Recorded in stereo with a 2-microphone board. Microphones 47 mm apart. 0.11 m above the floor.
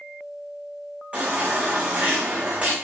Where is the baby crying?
25° right (ahead or behind), 6 m.